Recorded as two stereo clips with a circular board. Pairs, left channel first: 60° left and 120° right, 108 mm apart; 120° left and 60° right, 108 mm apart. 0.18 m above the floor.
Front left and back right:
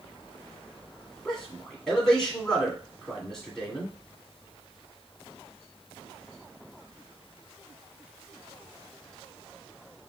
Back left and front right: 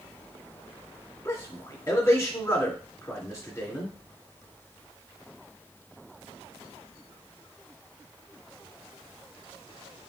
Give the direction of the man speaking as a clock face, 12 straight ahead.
7 o'clock.